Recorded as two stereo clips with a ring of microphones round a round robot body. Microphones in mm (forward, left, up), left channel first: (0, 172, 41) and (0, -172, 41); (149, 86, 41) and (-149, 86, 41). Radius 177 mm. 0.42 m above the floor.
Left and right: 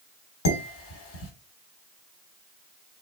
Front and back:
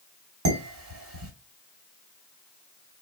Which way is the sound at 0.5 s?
140° left.